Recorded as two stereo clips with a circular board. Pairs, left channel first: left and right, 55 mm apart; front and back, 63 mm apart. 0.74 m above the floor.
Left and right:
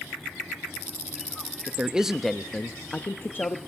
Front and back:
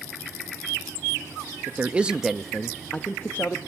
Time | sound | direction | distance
1.7 | a man speaking | 140° right | 0.7 m